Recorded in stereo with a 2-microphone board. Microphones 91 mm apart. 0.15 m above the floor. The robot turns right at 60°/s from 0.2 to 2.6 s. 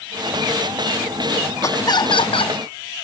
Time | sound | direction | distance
1.6 | laughter | 35° left | ?